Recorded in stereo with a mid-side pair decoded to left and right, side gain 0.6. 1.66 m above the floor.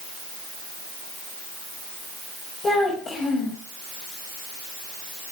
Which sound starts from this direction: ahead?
A child speaking, at 2.6 s.